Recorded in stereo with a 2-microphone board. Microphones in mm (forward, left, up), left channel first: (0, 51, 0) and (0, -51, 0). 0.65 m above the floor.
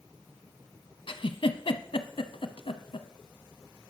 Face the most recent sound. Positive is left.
turn(degrees=65)  # may be behind; listen again after turning